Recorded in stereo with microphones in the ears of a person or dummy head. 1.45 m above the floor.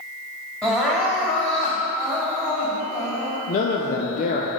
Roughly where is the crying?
Centre.